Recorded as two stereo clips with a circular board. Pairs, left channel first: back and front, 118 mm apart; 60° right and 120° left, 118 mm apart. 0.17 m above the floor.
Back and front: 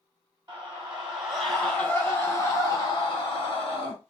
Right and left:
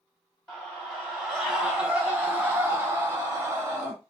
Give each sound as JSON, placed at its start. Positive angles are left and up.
{"t": 0.5, "sound": "a scream", "azimuth_deg": 10, "distance_m": 1.1}